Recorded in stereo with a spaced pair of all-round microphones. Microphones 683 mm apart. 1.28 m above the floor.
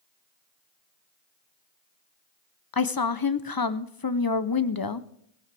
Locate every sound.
2.7 s a woman speaking: 35° left (ahead or behind), 0.7 m